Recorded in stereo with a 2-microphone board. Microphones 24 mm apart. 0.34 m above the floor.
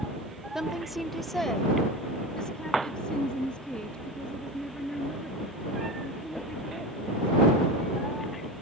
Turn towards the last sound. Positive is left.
turn(degrees=45)  # may be behind; listen again after turning